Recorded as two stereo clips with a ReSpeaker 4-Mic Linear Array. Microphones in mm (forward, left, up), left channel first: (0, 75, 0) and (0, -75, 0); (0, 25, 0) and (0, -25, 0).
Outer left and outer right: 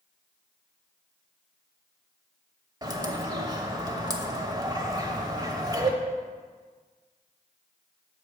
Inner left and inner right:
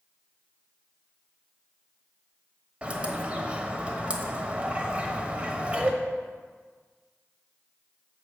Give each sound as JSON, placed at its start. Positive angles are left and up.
{"t": 2.8, "sound": "a bird", "side_deg": -25, "distance_m": 1.0}